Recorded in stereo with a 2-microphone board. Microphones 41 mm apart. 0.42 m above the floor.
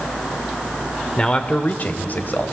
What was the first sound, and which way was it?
A man speaking, 25° left (ahead or behind).